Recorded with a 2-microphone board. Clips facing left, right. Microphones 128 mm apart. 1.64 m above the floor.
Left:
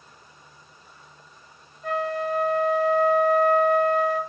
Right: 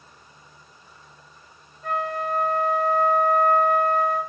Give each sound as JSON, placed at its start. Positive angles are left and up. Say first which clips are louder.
{"t": 1.8, "sound": "a flute", "louder": "left 1 dB", "side_deg": -45, "distance_m": 2.0}